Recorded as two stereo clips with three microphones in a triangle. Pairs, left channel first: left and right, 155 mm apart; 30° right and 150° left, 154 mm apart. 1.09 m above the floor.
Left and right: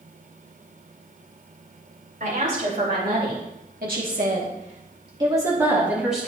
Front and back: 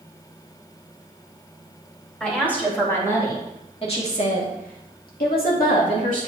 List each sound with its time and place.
2.2 s a woman speaking: 110° right, 4.5 m; by 6.3 s straight ahead, 3.5 m